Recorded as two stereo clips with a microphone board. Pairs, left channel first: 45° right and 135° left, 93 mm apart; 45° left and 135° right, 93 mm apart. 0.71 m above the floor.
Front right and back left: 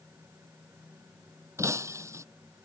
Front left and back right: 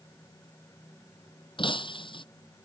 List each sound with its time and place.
1.6 s breaking glass: 75° left